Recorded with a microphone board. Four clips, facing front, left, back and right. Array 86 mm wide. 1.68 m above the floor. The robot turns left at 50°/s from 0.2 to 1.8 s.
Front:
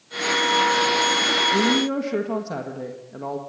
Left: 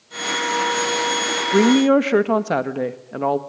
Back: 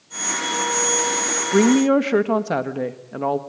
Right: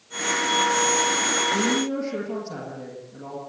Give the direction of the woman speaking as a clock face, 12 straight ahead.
8 o'clock.